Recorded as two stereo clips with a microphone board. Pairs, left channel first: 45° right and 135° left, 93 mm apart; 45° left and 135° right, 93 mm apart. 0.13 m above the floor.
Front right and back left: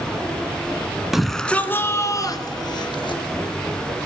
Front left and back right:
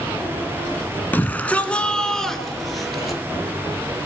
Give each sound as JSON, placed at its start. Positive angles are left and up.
{"t": 1.1, "sound": "a shout", "azimuth_deg": 55, "distance_m": 1.3}